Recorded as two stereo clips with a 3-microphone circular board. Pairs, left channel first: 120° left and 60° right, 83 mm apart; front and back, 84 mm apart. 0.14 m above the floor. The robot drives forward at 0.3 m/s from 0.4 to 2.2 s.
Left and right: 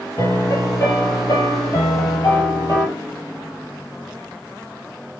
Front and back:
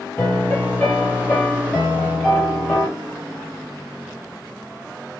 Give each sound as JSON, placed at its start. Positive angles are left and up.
{"t": 0.2, "sound": "a piano", "azimuth_deg": 70, "distance_m": 2.0}